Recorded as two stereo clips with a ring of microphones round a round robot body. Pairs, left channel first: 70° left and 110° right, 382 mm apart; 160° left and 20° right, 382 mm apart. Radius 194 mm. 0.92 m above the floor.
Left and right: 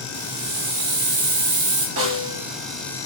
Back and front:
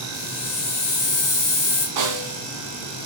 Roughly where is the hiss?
Behind right.